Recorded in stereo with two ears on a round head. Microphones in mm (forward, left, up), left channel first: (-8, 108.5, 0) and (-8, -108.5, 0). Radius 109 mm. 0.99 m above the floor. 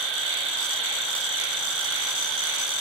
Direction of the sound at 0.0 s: 50° right (ahead or behind).